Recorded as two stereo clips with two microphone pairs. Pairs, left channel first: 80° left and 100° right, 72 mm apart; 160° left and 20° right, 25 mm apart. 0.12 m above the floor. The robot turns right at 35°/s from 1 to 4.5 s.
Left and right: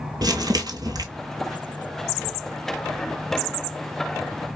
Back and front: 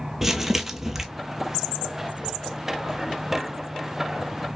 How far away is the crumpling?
About 0.8 m.